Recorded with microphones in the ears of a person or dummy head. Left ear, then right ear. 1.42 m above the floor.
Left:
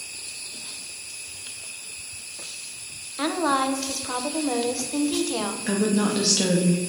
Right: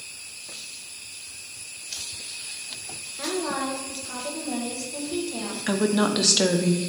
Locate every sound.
3.2 s a woman speaking: 55° left (ahead or behind), 0.9 m
5.7 s a woman speaking: 35° right (ahead or behind), 0.7 m